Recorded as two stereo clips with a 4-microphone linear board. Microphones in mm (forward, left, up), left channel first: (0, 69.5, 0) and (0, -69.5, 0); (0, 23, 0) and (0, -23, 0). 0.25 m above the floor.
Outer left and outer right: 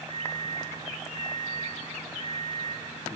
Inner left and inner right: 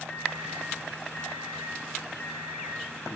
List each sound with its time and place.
0.1 s a microwave: 45° left (ahead or behind), 1.0 m